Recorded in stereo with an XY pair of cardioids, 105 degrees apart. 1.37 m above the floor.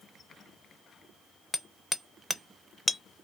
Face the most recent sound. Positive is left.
turn(degrees=10)